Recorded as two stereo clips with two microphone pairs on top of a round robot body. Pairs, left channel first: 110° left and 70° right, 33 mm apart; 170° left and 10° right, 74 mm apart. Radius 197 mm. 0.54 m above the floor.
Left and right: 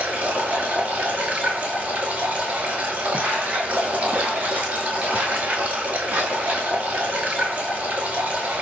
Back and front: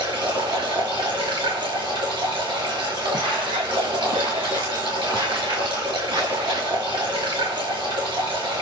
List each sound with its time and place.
0.0 s running water: 30° right, 5.5 m
3.1 s footsteps: 20° right, 3 m; by 6.7 s 35° right, 7.5 m